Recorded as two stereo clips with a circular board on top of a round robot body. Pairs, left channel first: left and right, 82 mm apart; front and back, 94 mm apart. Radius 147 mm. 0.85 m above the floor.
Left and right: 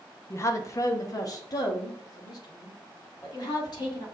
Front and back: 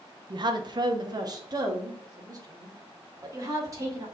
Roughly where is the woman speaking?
Behind left.